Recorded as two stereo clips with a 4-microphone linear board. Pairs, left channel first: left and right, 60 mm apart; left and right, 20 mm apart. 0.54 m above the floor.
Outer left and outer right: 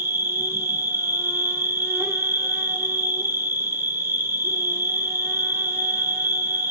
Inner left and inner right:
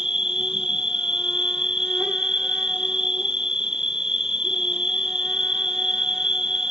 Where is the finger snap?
No finger snap in this recording.